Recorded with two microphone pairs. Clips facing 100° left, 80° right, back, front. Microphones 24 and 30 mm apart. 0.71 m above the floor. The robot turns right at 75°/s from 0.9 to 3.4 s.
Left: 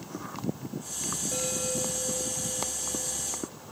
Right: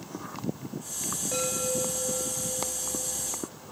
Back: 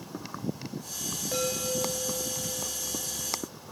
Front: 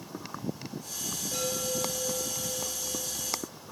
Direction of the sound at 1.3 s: 130° right.